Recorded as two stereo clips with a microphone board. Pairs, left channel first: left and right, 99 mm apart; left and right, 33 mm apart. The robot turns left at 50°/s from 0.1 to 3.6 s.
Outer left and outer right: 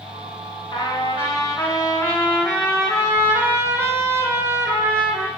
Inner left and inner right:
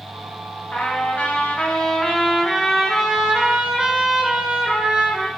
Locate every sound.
0.7 s a trumpet: 110° left, 2.0 m; by 5.3 s 35° right, 2.0 m